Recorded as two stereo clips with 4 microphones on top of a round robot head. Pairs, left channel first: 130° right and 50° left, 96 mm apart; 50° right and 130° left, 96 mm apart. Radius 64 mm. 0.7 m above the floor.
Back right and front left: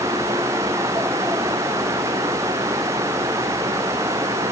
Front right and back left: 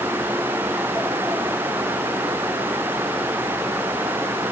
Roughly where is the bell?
No bell in this recording.